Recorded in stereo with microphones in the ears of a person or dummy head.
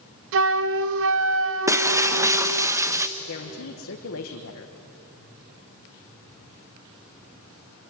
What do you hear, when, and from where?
0.3 s a flute: 65° right (ahead or behind), 0.7 m
1.7 s breaking glass: 15° right (ahead or behind), 0.8 m
3.2 s a woman speaking: 70° left (ahead or behind), 1.4 m